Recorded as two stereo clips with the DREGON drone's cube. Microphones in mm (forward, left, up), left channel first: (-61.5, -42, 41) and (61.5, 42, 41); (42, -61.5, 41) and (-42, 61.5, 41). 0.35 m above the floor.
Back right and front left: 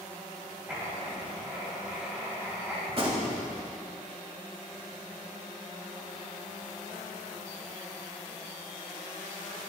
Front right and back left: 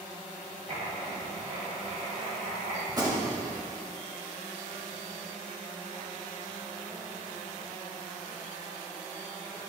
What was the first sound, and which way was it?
Writing, 115° left.